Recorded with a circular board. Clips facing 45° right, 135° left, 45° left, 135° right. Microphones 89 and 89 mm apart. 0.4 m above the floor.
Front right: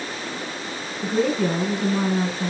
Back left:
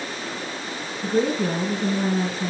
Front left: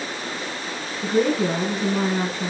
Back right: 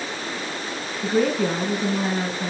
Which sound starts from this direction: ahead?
A woman speaking, at 1.0 s.